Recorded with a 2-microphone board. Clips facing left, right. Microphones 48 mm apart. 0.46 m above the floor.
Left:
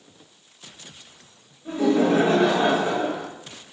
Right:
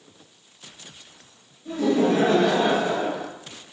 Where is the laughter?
30° left (ahead or behind), 0.9 m.